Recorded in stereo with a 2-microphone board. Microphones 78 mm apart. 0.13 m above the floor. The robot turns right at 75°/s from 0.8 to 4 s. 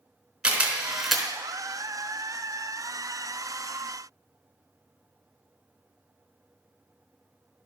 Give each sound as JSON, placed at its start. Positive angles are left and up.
{"t": 0.4, "sound": "a camera shutter", "side_deg": -10, "distance_m": 1.6}